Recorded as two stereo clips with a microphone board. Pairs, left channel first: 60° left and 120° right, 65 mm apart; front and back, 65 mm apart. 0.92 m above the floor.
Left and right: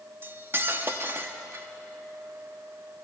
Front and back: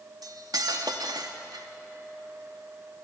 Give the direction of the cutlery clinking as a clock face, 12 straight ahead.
6 o'clock.